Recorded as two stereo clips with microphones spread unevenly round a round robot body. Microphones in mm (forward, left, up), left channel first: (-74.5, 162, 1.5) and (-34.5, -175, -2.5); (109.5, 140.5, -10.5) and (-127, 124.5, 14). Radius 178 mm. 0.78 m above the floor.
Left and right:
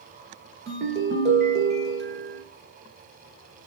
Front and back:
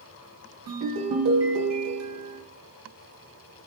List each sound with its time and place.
0.7 s a ringtone: 145° right, 1.6 m